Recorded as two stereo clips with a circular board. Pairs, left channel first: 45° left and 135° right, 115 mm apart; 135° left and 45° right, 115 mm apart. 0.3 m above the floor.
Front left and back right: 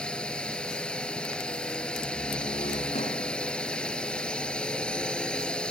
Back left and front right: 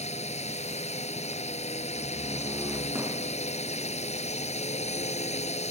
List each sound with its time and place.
0.0 s a drone: 125° left
1.9 s a door slam: 25° left